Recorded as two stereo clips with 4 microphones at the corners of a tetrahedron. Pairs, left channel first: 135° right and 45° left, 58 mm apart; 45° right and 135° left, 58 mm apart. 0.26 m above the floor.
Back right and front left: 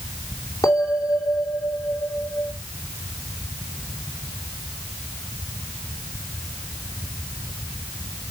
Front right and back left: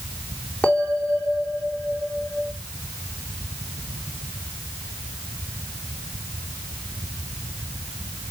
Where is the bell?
120° right, 2.5 m.